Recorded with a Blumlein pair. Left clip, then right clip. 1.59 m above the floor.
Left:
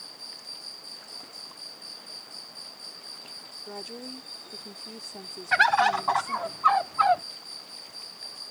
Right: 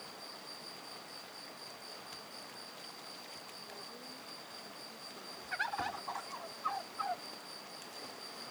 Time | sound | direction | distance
0.0 | an insect | 60° left | ?
3.7 | a woman speaking | 55° left | ?
5.5 | a bird | 35° left | ?